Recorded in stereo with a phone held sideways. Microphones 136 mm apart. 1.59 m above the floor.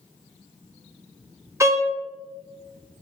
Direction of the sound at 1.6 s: 20° right (ahead or behind).